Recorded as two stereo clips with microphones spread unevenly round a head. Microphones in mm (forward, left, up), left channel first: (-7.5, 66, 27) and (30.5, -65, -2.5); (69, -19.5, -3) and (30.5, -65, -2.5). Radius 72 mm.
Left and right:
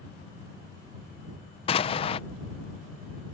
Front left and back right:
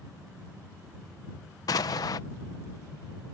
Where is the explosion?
50° left.